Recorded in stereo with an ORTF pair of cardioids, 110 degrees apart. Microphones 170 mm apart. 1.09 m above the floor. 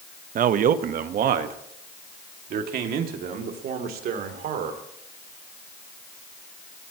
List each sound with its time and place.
0.3 s a man speaking: 55° right, 0.9 m; by 4.8 s 70° right, 3.5 m